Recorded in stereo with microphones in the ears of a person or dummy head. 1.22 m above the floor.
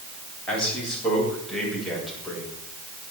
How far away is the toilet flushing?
No toilet flushing in this recording.